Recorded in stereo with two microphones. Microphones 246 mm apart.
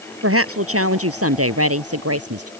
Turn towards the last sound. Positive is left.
turn(degrees=-75)  # may be behind; listen again after turning